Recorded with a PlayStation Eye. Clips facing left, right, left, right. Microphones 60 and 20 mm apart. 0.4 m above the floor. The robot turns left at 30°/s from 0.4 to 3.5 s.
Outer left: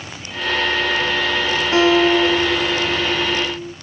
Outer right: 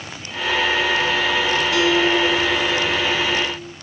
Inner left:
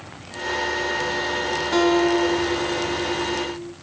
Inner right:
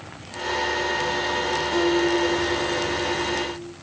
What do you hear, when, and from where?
1.7 s a guitar: 110° left, 0.8 m; by 3.7 s 55° left, 0.8 m